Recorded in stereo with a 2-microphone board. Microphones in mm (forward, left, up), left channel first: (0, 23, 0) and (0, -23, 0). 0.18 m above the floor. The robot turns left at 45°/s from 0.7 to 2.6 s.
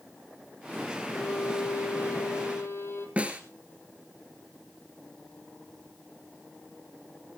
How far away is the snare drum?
About 2 m.